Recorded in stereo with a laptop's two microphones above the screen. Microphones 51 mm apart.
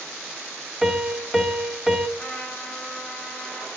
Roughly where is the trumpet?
Centre.